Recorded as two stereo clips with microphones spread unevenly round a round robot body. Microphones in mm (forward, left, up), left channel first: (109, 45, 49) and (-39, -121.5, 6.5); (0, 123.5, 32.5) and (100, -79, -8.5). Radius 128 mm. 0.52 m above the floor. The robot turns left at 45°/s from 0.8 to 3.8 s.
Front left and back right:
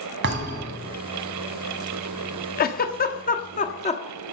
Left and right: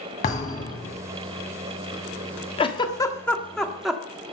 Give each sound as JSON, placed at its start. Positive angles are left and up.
{"t": 0.2, "sound": "a thud", "azimuth_deg": 180, "distance_m": 1.9}
{"t": 2.6, "sound": "a giggle", "azimuth_deg": 55, "distance_m": 1.3}